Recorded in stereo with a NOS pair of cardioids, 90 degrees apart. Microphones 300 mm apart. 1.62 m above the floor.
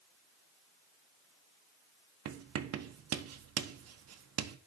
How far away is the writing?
About 1.1 m.